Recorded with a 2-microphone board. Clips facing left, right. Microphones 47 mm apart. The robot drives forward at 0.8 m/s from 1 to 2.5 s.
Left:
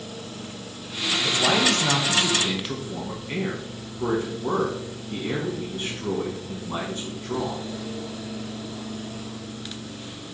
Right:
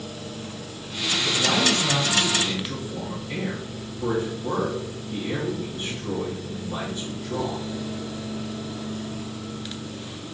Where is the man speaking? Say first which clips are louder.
Left 1 dB; 60° left (ahead or behind), 1.1 m; by 7.6 s 55° left (ahead or behind), 1.2 m.